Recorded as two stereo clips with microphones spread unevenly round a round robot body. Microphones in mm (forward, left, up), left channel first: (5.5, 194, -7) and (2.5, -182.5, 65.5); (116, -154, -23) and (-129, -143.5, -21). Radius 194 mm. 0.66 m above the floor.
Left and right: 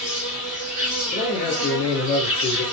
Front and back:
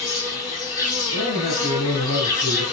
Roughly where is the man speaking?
Ahead left.